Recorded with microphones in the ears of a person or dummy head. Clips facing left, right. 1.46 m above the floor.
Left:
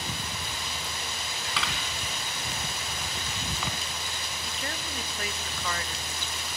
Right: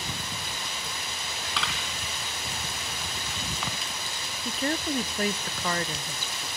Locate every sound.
1.6 s a camera shutter: centre (ahead or behind), 3.5 m
4.5 s a woman speaking: 40° right (ahead or behind), 0.6 m